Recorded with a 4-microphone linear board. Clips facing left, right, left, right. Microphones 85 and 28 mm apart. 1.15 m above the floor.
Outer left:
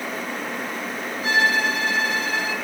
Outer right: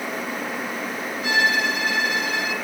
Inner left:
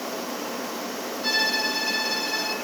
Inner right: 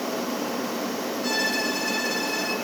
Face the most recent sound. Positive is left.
turn(degrees=35)  # may be behind; listen again after turning